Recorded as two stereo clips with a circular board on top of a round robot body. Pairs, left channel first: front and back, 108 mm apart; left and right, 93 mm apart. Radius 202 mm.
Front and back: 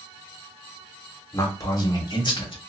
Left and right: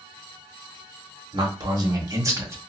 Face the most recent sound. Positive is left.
turn(degrees=-30)